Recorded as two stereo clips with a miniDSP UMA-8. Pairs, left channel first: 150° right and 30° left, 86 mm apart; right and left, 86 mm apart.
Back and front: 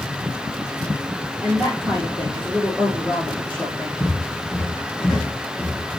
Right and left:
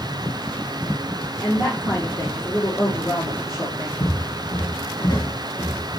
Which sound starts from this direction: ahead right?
A woman speaking, at 1.4 s.